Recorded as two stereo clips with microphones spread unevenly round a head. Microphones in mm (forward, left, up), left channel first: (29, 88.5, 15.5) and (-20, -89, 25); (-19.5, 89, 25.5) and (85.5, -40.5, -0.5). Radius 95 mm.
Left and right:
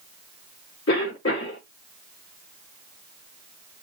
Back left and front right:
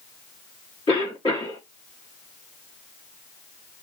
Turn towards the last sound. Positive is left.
turn(degrees=70)